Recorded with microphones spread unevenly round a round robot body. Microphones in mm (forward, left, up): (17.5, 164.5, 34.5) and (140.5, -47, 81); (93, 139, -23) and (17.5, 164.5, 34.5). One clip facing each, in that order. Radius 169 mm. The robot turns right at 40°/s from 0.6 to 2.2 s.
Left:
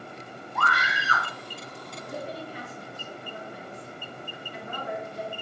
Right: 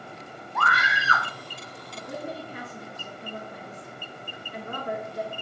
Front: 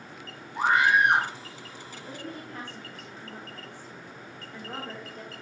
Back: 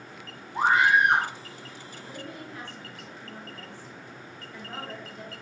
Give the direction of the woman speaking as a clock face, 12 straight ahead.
1 o'clock.